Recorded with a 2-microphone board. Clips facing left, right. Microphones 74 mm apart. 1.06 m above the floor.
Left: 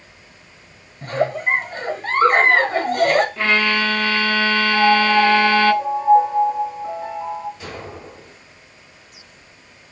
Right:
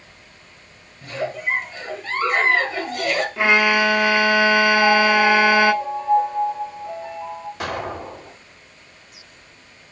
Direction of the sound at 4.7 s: 40° left (ahead or behind).